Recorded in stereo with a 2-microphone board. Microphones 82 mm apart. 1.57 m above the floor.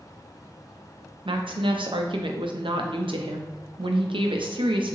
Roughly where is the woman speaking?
Right.